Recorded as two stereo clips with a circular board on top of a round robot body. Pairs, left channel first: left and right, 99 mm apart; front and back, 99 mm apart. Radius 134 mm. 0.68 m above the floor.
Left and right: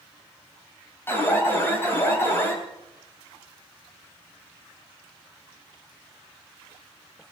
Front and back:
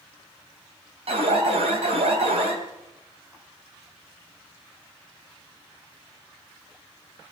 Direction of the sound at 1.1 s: 160° left.